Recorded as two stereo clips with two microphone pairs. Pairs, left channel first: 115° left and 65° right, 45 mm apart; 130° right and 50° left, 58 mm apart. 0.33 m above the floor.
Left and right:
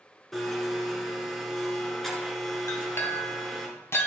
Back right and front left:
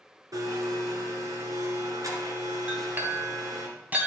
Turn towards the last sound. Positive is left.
turn(degrees=110)